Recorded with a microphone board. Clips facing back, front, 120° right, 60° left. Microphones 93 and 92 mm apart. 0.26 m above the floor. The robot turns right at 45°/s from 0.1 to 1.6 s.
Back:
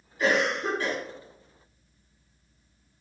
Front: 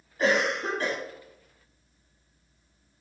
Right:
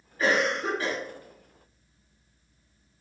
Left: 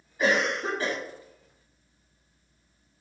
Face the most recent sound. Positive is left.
turn(degrees=60)